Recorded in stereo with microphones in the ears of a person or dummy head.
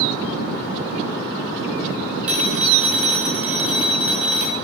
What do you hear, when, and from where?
2.3 s a phone ringing: 5° right (ahead or behind), 0.6 m